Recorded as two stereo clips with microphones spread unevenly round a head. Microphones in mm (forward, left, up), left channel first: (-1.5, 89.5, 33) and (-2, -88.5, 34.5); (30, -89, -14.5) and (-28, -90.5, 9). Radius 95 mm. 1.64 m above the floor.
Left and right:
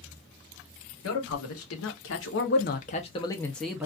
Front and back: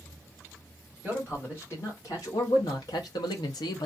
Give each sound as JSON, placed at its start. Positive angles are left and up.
{"t": 1.0, "sound": "a man speaking", "azimuth_deg": 90, "distance_m": 1.3}